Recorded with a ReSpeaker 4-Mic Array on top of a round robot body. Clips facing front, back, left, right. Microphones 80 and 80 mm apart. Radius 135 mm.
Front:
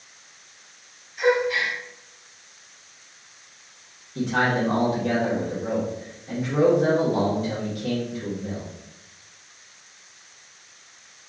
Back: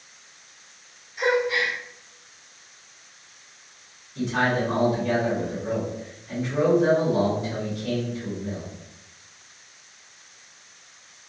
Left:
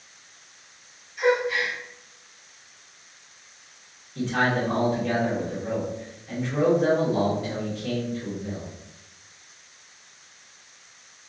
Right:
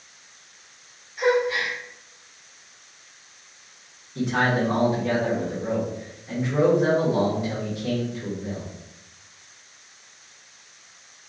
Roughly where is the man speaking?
Ahead.